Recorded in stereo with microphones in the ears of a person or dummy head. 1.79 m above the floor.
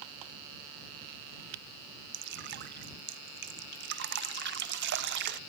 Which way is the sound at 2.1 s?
55° right (ahead or behind).